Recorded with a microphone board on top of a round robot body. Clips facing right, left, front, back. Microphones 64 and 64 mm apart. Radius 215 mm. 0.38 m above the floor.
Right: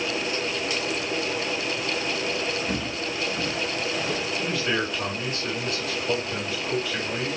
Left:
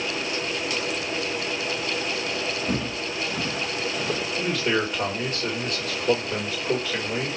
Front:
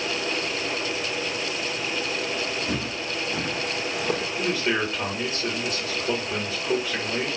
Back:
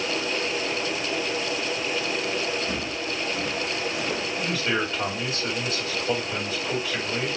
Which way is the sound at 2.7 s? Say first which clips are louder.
Left 1 dB, even; 55° left.